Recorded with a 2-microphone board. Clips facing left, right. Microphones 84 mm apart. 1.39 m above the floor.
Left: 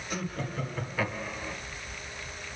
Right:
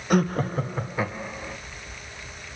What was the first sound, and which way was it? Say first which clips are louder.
Laughter: right 12 dB; 65° right (ahead or behind).